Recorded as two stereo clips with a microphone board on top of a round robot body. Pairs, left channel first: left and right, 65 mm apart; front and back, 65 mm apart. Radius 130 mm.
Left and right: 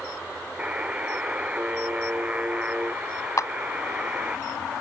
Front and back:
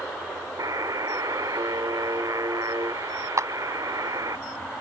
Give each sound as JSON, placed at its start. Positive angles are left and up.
{"t": 0.6, "sound": "a buzzer", "azimuth_deg": -160}
{"t": 3.4, "sound": "a clap", "azimuth_deg": 135}